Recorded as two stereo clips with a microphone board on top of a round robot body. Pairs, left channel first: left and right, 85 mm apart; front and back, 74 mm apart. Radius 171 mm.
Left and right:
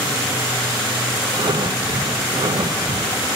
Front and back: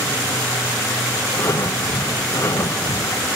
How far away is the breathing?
About 0.6 m.